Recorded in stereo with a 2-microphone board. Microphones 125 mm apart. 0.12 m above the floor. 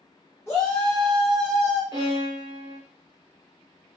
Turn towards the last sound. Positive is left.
turn(degrees=-30)  # may be behind; listen again after turning